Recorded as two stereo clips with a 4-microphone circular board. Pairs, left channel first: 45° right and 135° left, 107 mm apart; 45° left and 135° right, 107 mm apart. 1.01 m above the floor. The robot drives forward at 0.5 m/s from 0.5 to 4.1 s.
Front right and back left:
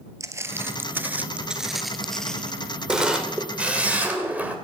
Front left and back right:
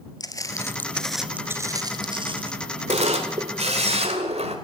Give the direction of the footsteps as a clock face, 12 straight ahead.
9 o'clock.